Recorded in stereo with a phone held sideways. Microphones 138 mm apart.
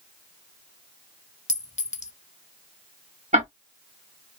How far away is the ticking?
About 1.1 m.